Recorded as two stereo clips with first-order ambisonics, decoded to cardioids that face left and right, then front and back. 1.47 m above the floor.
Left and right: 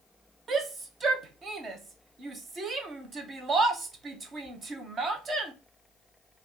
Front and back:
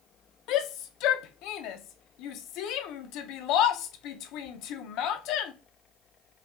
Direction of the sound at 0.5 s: 25° right.